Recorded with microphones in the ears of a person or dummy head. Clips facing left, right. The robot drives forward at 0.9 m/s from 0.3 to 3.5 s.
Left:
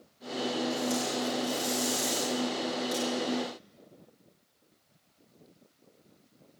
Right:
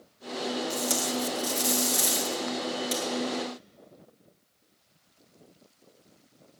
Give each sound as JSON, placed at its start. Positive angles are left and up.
{"t": 0.7, "sound": "tape being pulled", "side_deg": -85, "distance_m": 1.9}